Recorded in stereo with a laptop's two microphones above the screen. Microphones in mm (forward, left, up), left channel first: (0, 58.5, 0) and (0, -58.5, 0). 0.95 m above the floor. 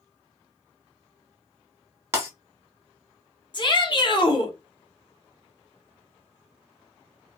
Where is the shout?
40° left (ahead or behind), 0.7 m.